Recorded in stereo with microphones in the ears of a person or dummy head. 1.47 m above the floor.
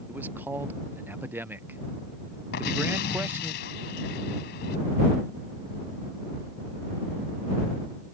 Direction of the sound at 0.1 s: 10° right (ahead or behind).